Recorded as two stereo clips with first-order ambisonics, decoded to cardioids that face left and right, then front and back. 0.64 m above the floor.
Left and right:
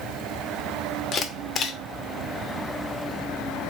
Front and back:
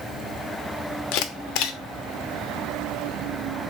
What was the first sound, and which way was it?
A camera shutter, 25° left.